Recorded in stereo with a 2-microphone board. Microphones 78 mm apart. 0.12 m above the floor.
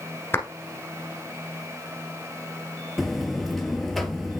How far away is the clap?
About 1.3 m.